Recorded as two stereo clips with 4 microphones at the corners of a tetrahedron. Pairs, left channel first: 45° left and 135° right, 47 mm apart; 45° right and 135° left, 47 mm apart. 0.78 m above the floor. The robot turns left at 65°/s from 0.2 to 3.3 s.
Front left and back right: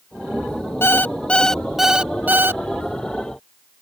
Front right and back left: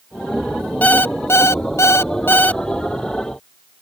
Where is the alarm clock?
10° left; by 2.6 s 105° right.